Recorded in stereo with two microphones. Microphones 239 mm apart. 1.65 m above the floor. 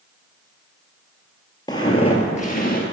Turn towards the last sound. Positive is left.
turn(degrees=40)  # may be behind; listen again after turning